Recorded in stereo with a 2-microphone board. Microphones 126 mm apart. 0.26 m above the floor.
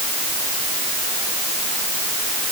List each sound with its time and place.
Only background noise.